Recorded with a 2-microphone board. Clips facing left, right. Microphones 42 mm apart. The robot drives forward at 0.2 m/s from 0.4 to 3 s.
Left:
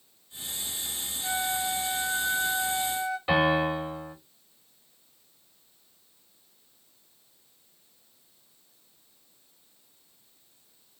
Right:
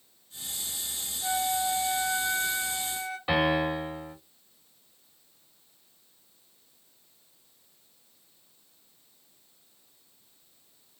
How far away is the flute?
About 1.8 m.